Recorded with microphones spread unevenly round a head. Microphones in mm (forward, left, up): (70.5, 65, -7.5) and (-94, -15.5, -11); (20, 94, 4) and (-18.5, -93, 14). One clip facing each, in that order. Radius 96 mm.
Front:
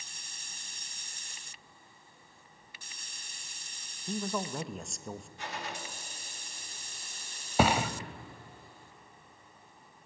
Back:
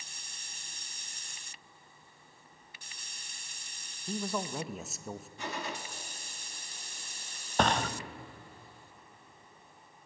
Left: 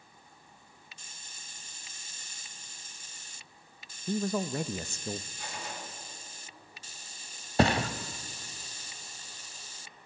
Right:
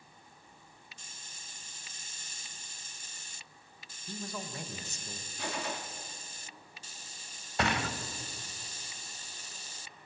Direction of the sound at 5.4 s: 135° right.